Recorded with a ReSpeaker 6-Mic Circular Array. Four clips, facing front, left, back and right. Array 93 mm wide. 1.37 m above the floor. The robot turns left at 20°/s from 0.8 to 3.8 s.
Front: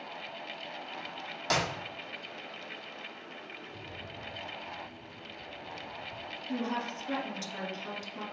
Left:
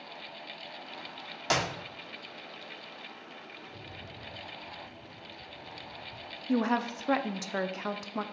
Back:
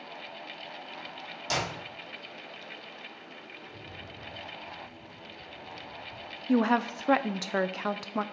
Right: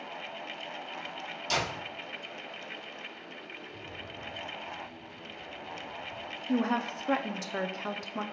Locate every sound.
1.5 s a clap: 65° left, 1.6 m; by 1.7 s 60° left, 1.6 m
3.6 s a rattle: 125° left, 2.5 m; by 6.4 s 120° left, 2.5 m
6.5 s a woman speaking: 170° left, 0.5 m